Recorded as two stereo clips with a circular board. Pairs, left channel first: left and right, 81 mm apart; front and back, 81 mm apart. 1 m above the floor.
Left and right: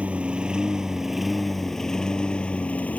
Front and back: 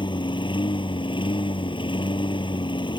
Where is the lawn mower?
15° right; by 3.0 s 20° left.